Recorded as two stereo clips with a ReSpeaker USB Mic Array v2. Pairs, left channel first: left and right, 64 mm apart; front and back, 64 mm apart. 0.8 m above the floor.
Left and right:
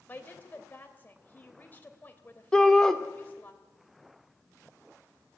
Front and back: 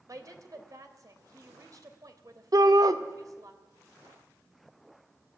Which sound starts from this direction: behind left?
A woman speaking, at 0.1 s.